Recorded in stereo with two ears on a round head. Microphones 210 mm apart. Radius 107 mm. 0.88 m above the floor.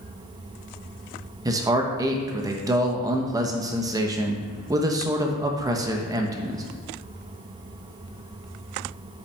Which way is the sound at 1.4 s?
15° right (ahead or behind).